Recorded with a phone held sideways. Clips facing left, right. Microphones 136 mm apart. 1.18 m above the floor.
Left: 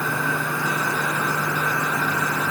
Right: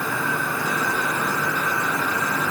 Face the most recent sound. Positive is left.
No sound to turn to.